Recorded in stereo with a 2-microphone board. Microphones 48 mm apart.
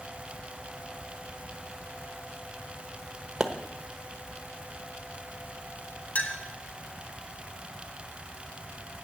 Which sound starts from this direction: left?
A clink, at 6.2 s.